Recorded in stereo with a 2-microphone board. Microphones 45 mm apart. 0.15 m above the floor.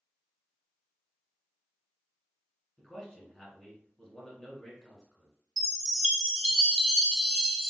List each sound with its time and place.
2.8 s a man speaking: 5° left (ahead or behind), 1.5 m
5.6 s a chime: centre (ahead or behind), 1.1 m